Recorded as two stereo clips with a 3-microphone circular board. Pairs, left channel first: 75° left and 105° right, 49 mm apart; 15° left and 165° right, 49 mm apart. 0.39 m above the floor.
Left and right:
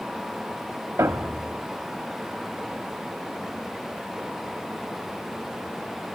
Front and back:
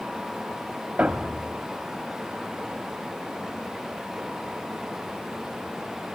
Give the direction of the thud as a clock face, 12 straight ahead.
3 o'clock.